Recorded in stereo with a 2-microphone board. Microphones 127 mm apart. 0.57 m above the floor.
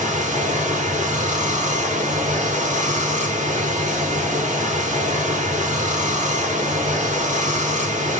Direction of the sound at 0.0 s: 75° right (ahead or behind).